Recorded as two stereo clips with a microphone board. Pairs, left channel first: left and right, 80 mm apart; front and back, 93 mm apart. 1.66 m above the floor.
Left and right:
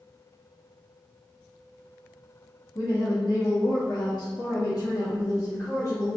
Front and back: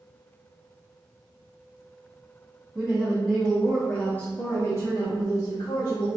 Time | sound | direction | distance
2.8 | a woman speaking | 110° left | 0.9 m